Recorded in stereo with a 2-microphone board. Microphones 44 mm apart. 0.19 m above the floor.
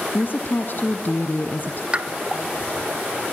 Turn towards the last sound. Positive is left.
turn(degrees=-30)  # may be behind; listen again after turning